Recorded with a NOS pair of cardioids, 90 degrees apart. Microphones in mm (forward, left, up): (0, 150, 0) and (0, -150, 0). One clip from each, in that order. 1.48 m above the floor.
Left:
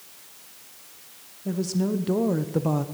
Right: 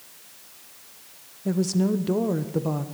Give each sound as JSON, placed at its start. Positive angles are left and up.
{"t": 1.4, "sound": "a woman speaking", "azimuth_deg": -25, "distance_m": 1.0}